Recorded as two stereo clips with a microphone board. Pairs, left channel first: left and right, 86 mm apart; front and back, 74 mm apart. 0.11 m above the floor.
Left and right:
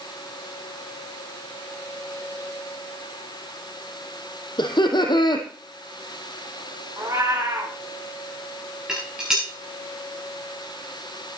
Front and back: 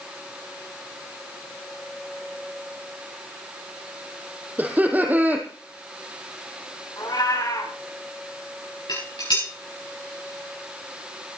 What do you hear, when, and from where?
4.6 s laughter: 115° left, 4 m
7.0 s a cat meowing: 30° right, 6.5 m
8.9 s dishes clattering: 10° right, 7 m